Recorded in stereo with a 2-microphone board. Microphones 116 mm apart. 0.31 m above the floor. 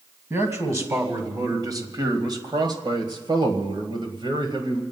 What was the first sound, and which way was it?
A man speaking, 25° right (ahead or behind).